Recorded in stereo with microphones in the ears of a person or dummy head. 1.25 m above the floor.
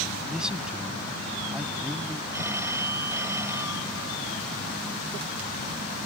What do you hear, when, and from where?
0.3 s a man speaking: centre (ahead or behind)
2.3 s a phone ringing: 25° right (ahead or behind)